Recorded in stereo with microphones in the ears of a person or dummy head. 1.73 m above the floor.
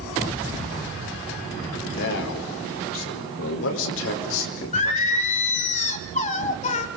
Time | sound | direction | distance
1.9 | a man speaking | 70° left (ahead or behind) | 4.5 m
4.7 | singing | 40° left (ahead or behind) | 1.8 m